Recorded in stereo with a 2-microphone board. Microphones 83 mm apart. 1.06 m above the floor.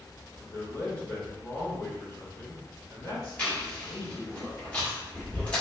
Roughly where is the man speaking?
Left.